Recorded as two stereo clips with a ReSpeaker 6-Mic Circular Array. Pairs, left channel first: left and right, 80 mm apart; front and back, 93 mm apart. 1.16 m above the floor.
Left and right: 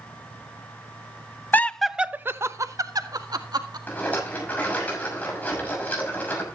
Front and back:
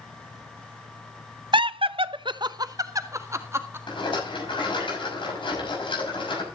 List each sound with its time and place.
1.5 s laughter: 155° left, 0.6 m; by 3.8 s 120° right, 1.8 m
3.9 s a rattle: 20° left, 6 m